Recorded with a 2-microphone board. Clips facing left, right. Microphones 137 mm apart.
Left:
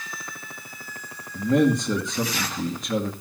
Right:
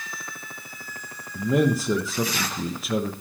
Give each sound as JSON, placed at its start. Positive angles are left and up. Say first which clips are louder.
{"t": 1.4, "sound": "a man speaking", "louder": "left 2 dB", "side_deg": -5, "distance_m": 1.3}